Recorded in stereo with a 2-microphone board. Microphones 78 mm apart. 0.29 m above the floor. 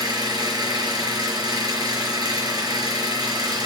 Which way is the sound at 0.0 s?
60° right (ahead or behind).